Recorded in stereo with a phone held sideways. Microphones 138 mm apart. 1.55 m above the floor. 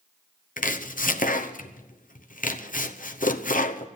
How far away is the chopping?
About 0.8 m.